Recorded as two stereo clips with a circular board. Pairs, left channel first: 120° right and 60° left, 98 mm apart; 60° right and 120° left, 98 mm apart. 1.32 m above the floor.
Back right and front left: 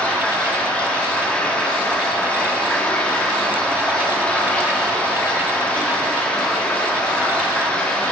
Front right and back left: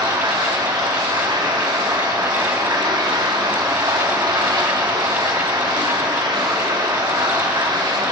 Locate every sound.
0.0 s running water: 165° left, 1.6 m